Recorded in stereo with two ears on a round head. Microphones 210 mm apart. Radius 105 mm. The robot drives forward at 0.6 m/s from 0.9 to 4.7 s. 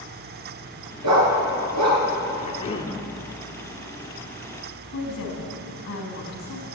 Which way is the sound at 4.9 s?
55° left (ahead or behind).